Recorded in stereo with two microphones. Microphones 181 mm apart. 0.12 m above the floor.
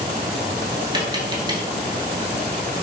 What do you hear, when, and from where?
0.9 s tapping: 25° right (ahead or behind), 0.6 m